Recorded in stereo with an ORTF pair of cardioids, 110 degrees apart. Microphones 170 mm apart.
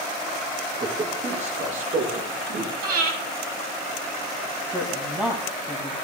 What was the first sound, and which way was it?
A man speaking, 35° right.